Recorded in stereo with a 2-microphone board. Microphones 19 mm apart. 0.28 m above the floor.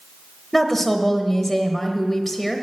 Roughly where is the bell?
No bell in this recording.